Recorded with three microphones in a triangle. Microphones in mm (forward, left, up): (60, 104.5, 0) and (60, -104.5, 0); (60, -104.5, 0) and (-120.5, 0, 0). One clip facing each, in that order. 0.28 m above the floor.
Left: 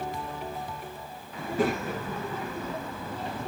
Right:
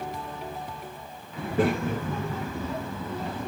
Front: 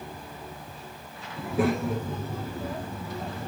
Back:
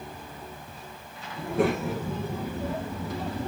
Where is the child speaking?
115° right, 3 m; by 3.5 s 160° right, 2.5 m.